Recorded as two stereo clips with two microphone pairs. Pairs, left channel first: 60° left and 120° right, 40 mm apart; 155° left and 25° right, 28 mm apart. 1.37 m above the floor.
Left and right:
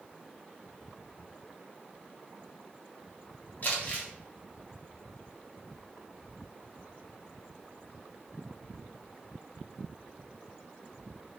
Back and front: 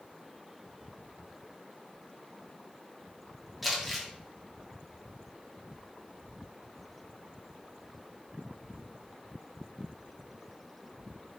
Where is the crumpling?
60° left, 1.1 m.